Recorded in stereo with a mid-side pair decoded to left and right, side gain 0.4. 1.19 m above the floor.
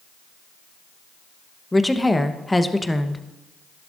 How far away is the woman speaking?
About 1.0 m.